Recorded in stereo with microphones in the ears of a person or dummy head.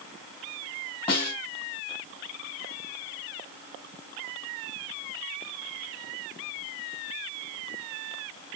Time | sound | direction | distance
1.1 | a snare drum | 30° left (ahead or behind) | 2.5 m